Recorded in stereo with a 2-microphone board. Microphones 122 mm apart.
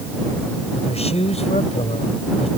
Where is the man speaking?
60° left (ahead or behind).